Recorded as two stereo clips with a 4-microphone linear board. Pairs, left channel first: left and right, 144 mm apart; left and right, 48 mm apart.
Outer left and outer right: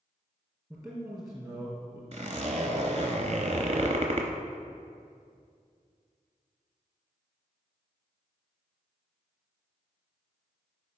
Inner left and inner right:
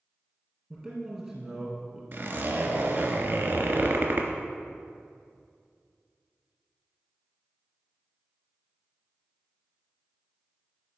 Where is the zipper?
45° right (ahead or behind), 0.7 m.